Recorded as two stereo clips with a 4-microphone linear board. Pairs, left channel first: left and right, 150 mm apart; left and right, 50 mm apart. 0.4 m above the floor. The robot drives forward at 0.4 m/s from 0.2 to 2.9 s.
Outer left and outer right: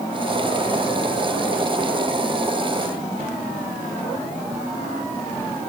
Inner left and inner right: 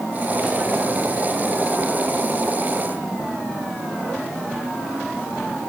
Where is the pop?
I don't hear a pop.